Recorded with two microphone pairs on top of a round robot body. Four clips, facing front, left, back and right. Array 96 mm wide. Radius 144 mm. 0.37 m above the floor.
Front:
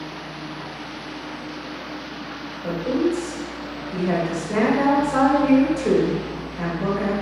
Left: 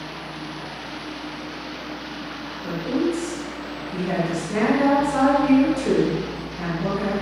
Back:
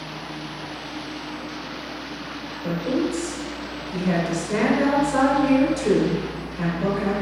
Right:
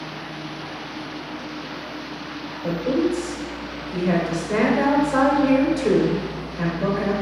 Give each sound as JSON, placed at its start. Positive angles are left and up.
{"t": 2.6, "sound": "a woman speaking", "azimuth_deg": -60, "distance_m": 1.7}